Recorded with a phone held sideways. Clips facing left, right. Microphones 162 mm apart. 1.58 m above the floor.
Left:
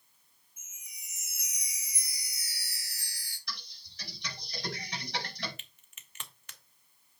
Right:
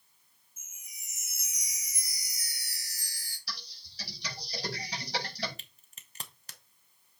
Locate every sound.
0.6 s a chime: 45° right (ahead or behind), 2.5 m
3.5 s typing on a keyboard: 35° right (ahead or behind), 5 m
5.6 s a crack: 35° right (ahead or behind), 0.8 m